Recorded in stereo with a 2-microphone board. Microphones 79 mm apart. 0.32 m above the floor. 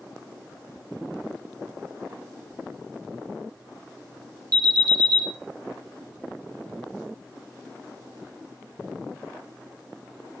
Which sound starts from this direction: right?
An alarm, at 4.5 s.